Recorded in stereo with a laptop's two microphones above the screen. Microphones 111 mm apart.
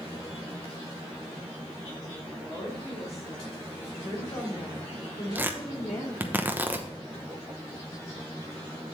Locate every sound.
2.4 s a woman speaking: 25° left (ahead or behind), 4 m; by 6.3 s 85° left, 3.5 m
5.3 s tearing paper: 15° right (ahead or behind), 0.8 m